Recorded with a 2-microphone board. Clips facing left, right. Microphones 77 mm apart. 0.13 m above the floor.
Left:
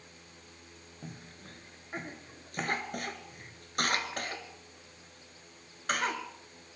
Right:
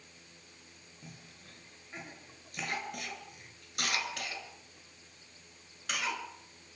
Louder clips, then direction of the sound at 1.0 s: Left 6 dB; 40° left (ahead or behind).